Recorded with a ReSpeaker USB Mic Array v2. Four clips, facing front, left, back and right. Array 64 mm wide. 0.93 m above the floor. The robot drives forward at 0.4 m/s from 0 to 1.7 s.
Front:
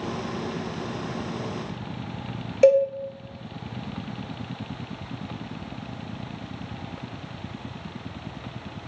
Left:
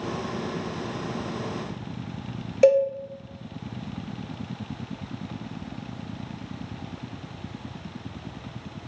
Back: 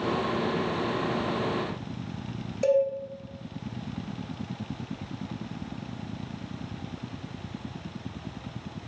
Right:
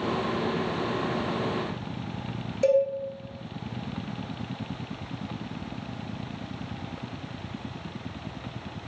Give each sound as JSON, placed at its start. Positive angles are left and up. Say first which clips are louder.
{"t": 2.6, "sound": "a cowbell", "louder": "left 4 dB, front 7 dB", "azimuth_deg": 45, "distance_m": 0.6}